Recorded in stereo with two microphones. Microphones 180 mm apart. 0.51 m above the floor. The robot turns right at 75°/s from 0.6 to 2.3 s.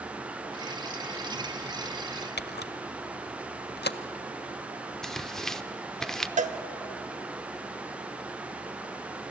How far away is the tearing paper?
About 0.6 m.